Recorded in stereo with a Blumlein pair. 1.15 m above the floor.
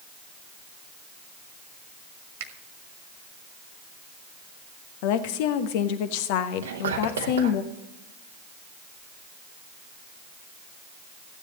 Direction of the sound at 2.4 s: 50° right.